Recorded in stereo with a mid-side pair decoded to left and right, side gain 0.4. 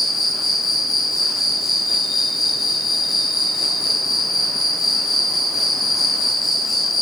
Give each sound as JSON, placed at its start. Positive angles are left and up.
{"t": 0.0, "sound": "an insect", "azimuth_deg": 55, "distance_m": 1.0}